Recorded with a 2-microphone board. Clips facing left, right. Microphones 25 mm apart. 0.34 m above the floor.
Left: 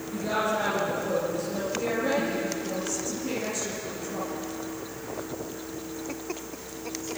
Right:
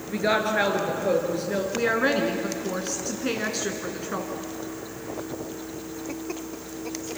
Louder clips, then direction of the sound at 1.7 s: Right 4 dB; 65° right (ahead or behind).